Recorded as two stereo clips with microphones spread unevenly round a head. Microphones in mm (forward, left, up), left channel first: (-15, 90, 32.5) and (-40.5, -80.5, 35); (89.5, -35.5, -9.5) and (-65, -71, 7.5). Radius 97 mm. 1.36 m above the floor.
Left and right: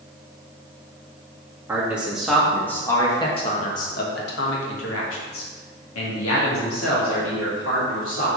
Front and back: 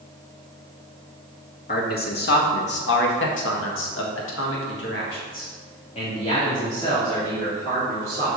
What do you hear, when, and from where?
1.7 s a man speaking: 20° right, 2 m; by 8.3 s 95° left, 3.5 m